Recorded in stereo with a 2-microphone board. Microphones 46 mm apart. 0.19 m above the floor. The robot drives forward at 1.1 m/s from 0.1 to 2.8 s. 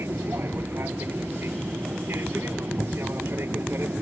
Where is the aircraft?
60° right (ahead or behind); by 4.0 s 55° right (ahead or behind).